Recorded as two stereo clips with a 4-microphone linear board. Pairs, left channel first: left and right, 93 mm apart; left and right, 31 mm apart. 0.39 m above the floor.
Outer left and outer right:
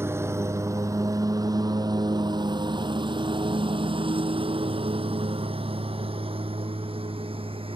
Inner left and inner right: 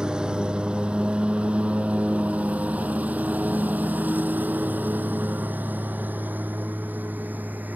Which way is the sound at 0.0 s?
25° right (ahead or behind).